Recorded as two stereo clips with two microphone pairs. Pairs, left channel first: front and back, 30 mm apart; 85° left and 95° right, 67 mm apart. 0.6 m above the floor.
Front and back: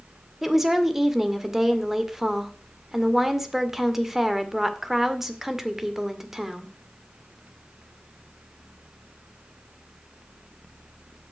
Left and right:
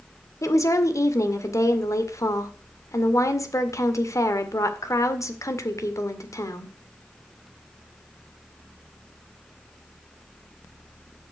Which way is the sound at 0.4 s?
105° left.